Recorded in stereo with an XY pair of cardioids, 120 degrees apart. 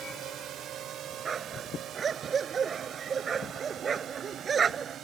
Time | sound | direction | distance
0.0 | a drone | 65° right | ?
1.2 | a dog barking | 35° right | ?